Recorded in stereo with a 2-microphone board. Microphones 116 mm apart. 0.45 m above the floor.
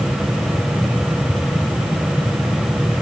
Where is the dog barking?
No dog barking in this recording.